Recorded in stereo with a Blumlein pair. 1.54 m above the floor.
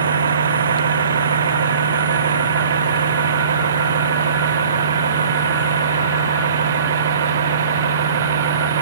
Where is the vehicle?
70° right; by 8.8 s 65° right.